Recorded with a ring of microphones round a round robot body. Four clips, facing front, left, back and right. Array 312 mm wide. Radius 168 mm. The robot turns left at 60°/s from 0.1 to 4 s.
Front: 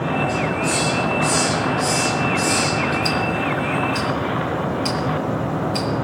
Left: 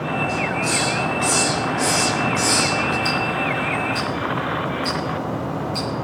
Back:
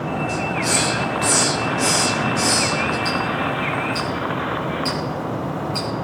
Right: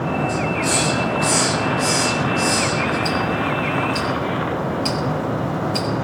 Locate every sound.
0.3 s a hiss: 135° right, 4 m; by 3.0 s 70° left, 4 m
3.0 s ticking: straight ahead, 3.5 m; by 5.9 s 55° right, 3.5 m